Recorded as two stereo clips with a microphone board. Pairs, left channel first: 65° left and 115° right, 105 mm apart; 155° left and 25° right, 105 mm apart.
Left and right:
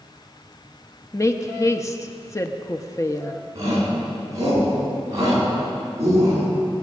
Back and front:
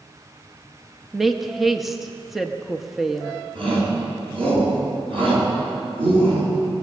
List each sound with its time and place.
1.1 s a woman speaking: 65° left, 0.8 m
3.5 s a shout: 55° right, 7 m